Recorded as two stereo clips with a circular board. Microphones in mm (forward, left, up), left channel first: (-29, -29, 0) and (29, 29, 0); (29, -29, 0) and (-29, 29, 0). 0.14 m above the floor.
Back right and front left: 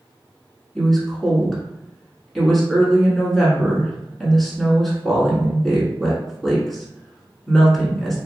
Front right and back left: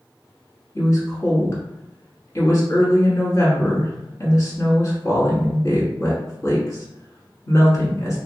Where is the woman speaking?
50° right, 1.3 m.